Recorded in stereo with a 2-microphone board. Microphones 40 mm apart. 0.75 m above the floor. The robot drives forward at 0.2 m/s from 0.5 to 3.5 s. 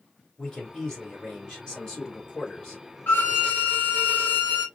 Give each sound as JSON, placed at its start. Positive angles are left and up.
{"t": 0.4, "sound": "a man speaking", "side_deg": 20, "distance_m": 2.5}
{"t": 3.1, "sound": "a violin", "side_deg": 55, "distance_m": 1.8}